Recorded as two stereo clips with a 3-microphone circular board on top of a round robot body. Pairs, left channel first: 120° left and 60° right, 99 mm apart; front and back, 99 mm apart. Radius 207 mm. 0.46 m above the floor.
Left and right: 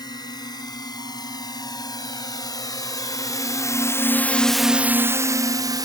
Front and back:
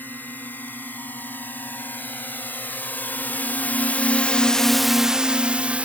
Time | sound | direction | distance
0.0 | a drone | 70° left | ?